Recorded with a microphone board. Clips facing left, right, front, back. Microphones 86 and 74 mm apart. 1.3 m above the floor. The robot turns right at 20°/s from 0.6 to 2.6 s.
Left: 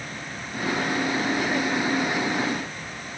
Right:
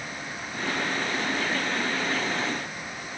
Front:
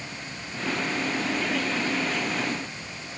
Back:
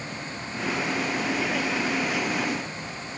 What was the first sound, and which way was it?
Only background noise.